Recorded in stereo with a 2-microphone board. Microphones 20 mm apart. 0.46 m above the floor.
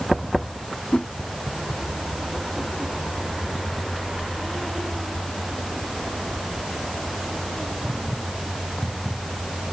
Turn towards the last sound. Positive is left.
turn(degrees=80)